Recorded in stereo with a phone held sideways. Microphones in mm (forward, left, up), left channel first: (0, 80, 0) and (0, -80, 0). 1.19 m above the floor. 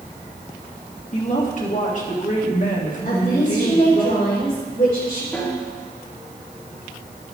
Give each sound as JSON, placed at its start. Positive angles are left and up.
{"t": 1.1, "sound": "a woman speaking", "side_deg": 55, "distance_m": 1.9}
{"t": 3.0, "sound": "a woman speaking", "side_deg": 60, "distance_m": 3.5}
{"t": 5.3, "sound": "a snare drum", "side_deg": 15, "distance_m": 2.5}